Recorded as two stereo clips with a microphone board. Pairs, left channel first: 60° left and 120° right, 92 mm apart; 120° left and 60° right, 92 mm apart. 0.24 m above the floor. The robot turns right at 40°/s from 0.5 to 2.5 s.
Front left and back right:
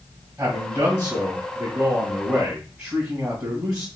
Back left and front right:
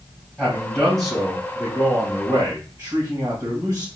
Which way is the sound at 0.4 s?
170° right.